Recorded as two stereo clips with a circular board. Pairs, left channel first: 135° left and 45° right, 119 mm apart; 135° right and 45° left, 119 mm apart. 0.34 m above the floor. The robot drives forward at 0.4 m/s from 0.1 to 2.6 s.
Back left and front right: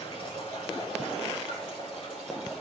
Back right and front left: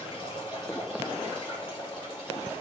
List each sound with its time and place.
0.0 s running water: 175° left, 7 m